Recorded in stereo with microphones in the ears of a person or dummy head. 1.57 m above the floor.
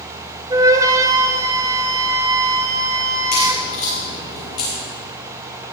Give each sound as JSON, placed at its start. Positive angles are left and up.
{"t": 0.5, "sound": "a flute", "side_deg": -20, "distance_m": 0.6}
{"t": 3.3, "sound": "a crack", "side_deg": 40, "distance_m": 5.0}